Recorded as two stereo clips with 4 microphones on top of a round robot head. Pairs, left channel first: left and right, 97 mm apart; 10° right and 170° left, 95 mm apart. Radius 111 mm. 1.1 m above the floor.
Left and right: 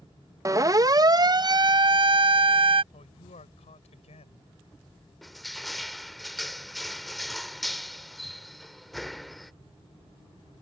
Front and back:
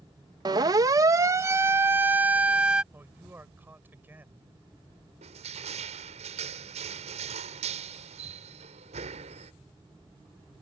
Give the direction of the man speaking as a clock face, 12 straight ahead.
9 o'clock.